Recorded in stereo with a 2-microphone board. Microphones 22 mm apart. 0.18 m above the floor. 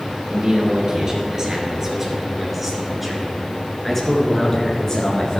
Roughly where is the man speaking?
Right.